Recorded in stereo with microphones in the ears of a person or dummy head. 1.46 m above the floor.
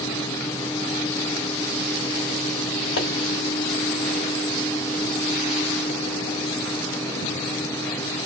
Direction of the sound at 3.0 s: 50° left (ahead or behind).